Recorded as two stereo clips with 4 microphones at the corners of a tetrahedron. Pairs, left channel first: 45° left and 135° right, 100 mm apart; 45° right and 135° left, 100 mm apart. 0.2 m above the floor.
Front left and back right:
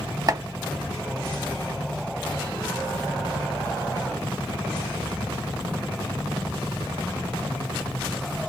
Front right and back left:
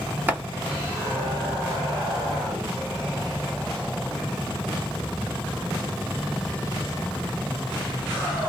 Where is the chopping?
165° right, 0.8 m.